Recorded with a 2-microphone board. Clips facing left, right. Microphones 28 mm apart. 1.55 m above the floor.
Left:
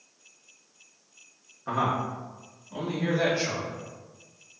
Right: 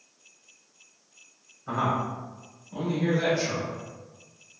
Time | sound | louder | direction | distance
1.7 | a man speaking | even | 90° left | 1.3 m